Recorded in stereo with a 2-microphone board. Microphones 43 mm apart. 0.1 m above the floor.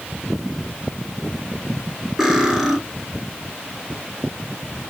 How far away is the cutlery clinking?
About 1.1 m.